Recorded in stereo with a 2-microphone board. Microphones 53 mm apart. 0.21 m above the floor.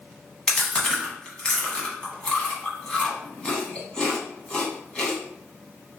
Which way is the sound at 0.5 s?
15° left (ahead or behind).